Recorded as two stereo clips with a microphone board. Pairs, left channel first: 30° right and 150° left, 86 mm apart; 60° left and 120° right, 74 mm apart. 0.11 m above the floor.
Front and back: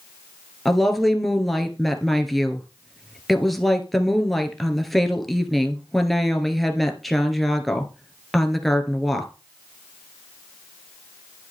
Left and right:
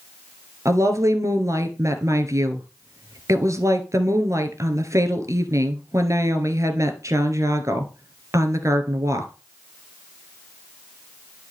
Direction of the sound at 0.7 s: 115° right.